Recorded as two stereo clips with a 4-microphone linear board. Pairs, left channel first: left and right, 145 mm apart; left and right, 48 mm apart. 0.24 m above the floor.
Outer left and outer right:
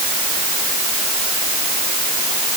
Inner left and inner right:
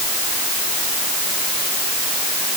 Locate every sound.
Only background noise.